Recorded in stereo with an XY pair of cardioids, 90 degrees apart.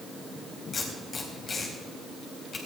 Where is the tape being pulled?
50° left, 4 m.